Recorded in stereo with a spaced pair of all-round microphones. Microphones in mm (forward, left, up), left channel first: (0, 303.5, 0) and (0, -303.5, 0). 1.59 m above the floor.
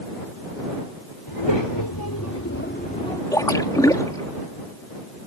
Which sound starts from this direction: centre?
A splash, at 3.3 s.